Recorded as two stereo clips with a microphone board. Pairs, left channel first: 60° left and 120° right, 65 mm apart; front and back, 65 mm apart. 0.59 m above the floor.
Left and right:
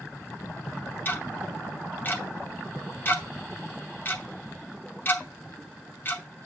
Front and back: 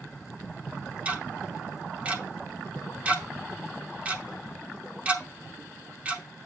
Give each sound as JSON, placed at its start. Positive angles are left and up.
{"t": 1.1, "sound": "ticking", "azimuth_deg": 115, "distance_m": 0.9}